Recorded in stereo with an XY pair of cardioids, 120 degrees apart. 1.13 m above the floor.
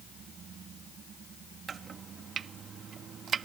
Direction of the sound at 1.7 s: 45° right.